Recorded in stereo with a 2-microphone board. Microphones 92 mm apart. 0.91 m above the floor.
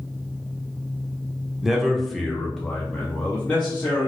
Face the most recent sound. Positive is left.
turn(degrees=15)  # may be behind; listen again after turning